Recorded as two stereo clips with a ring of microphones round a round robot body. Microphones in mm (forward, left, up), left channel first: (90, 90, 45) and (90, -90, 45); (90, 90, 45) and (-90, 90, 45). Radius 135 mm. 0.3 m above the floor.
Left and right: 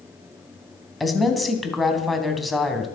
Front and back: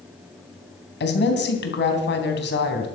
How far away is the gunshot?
I don't hear a gunshot.